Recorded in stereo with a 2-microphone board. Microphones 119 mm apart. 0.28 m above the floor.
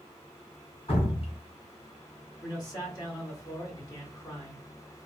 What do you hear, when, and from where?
0.9 s dripping: 50° left (ahead or behind), 2 m
2.4 s a man speaking: 35° left (ahead or behind), 1.8 m